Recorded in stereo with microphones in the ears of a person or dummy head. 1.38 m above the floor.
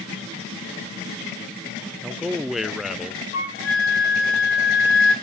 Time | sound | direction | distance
2.0 | a man speaking | centre (ahead or behind) | 0.6 m
3.3 | a flute | 55° left (ahead or behind) | 4.5 m